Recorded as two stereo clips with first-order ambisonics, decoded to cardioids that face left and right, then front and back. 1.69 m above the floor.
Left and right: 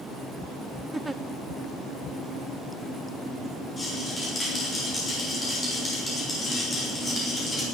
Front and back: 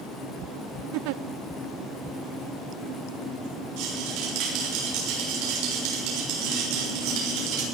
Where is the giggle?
170° right, 0.7 m.